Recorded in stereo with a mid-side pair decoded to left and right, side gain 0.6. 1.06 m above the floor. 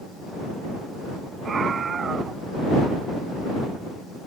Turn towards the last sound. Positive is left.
turn(degrees=-35)